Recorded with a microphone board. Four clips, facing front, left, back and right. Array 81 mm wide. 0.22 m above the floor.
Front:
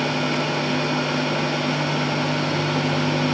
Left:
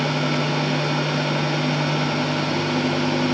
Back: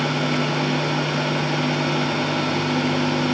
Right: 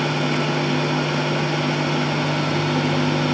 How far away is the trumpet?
I don't hear a trumpet.